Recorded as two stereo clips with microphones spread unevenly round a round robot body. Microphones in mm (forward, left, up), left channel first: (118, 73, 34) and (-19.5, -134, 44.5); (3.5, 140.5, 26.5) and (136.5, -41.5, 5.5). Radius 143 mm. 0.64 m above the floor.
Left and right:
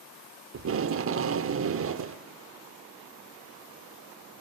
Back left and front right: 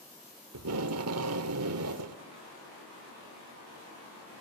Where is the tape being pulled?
85° right, 1.0 m.